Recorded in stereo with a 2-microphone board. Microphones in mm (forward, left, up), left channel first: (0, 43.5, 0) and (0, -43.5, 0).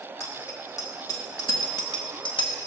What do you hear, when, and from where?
0.2 s a bicycle bell: 35° left (ahead or behind), 2 m; by 2.5 s 65° left (ahead or behind), 1.6 m